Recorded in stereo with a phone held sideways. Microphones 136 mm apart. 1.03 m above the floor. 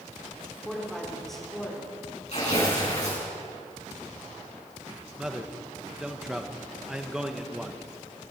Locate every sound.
0.7 s a woman speaking: centre (ahead or behind), 3.5 m
2.3 s tearing paper: 55° left (ahead or behind), 6.5 m
5.2 s a man speaking: 5° right (ahead or behind), 1.1 m